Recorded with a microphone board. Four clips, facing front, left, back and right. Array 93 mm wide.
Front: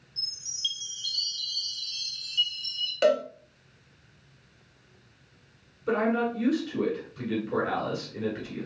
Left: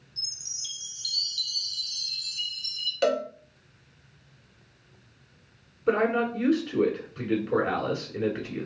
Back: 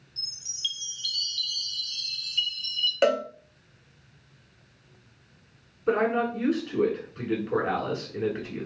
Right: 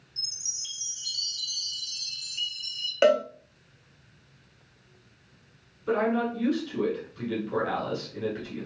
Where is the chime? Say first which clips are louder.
Even, even; 155° right, 0.6 m.